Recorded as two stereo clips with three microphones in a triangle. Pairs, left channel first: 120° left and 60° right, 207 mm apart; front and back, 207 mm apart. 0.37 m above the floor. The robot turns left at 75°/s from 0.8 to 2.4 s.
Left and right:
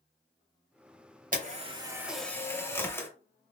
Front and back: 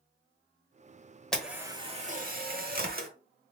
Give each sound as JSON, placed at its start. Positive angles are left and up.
{"t": 1.3, "sound": "a camera shutter", "azimuth_deg": -85, "distance_m": 1.1}